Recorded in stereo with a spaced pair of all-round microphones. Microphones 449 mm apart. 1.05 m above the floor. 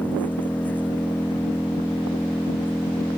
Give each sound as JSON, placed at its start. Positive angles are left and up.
{"t": 0.0, "sound": "an engine running", "side_deg": 5}